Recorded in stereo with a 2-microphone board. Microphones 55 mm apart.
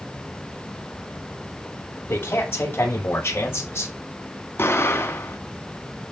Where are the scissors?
No scissors in this recording.